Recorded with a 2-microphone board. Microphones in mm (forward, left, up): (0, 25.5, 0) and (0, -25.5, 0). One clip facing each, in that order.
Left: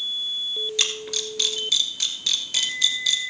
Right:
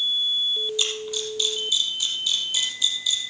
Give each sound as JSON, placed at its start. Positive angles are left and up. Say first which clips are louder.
{"t": 0.8, "sound": "a camera shutter", "louder": "even", "side_deg": 75, "distance_m": 1.7}